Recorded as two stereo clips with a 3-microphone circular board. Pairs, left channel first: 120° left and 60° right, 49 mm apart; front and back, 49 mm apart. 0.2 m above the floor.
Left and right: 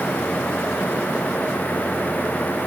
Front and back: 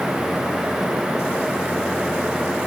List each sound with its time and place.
Only background noise.